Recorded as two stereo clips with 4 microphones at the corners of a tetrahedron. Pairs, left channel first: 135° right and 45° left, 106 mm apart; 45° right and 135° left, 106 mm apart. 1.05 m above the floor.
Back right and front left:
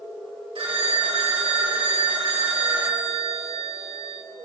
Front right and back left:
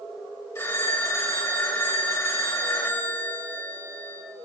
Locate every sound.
0.6 s a phone ringing: 20° left, 2.5 m